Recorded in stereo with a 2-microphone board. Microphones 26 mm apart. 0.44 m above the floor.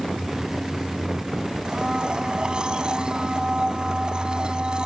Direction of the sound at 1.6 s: 30° right (ahead or behind).